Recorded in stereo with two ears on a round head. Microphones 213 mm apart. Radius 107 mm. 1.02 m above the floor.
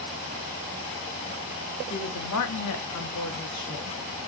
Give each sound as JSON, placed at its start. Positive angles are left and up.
{"t": 1.9, "sound": "a woman speaking", "side_deg": 55, "distance_m": 2.5}